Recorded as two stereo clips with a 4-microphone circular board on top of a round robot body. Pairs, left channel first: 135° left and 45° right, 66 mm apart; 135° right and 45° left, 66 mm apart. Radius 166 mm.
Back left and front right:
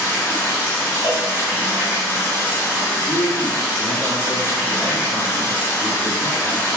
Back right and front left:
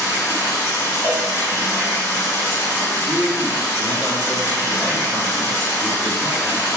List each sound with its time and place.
0.0 s running water: straight behind, 2.0 m
1.0 s a cowbell: 160° left, 1.1 m
3.1 s a man speaking: 145° left, 1.9 m